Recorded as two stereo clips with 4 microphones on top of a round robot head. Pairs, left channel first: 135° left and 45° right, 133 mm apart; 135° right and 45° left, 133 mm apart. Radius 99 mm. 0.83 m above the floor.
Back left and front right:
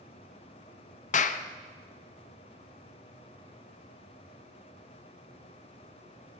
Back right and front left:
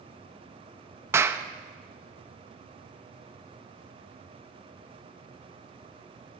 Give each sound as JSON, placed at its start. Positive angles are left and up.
{"t": 1.1, "sound": "a clap", "azimuth_deg": 115, "distance_m": 0.6}